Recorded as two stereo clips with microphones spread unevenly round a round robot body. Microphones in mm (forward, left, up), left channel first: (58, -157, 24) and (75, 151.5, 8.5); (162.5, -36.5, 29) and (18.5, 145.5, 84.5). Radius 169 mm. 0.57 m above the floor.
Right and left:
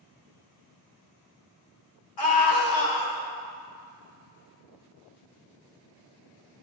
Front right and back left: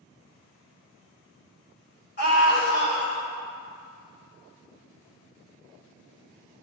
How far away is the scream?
About 2 m.